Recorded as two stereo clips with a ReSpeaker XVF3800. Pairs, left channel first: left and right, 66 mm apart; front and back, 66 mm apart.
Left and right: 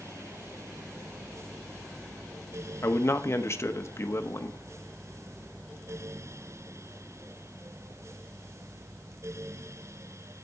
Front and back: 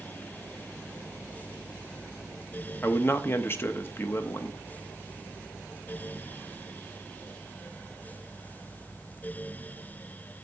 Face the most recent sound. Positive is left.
turn(degrees=50)